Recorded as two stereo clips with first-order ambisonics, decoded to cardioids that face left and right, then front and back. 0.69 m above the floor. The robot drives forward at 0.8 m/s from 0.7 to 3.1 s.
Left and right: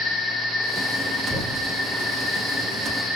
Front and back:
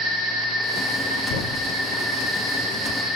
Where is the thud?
Straight ahead, 1.8 m.